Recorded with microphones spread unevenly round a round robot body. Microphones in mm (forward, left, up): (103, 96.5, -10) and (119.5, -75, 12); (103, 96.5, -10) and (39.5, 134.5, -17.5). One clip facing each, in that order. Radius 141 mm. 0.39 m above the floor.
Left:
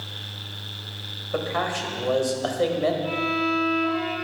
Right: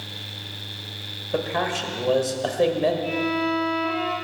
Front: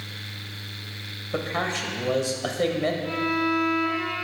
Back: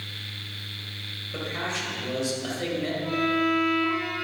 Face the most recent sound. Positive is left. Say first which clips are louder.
# right 2 dB, back 1 dB
turn(degrees=-140)